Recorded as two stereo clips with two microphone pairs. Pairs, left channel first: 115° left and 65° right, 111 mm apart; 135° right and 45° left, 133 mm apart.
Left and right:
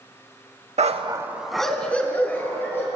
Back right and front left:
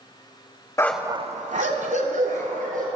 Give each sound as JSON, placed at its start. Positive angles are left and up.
{"t": 0.8, "sound": "a dog barking", "azimuth_deg": -65, "distance_m": 0.5}